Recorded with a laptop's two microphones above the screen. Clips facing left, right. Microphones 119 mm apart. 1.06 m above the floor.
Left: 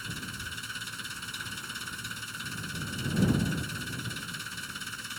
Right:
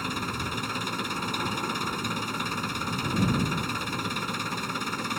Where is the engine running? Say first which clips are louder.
Right 10 dB; 70° right (ahead or behind).